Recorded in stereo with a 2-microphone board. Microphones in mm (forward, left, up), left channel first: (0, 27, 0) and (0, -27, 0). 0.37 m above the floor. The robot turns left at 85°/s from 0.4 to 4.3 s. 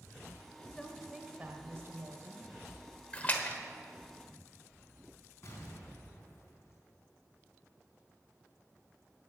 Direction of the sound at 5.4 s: 55° left (ahead or behind).